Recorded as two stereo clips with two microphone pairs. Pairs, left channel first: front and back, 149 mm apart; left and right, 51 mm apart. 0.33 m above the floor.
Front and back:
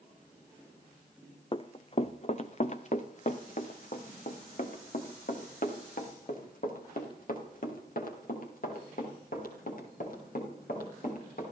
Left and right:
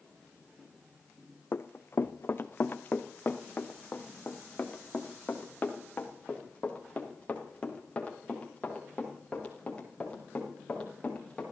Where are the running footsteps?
55° left, 1.0 m; by 11.4 s 25° left, 6.5 m.